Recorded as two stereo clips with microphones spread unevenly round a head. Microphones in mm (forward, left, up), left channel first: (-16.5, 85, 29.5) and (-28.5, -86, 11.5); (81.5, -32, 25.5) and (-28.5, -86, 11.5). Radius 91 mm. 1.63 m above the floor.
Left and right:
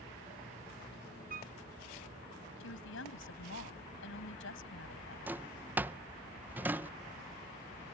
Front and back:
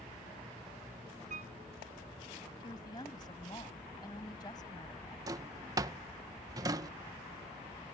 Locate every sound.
1.3 s a piano: 135° right
2.6 s a woman speaking: 95° left
5.3 s a drawer: 175° right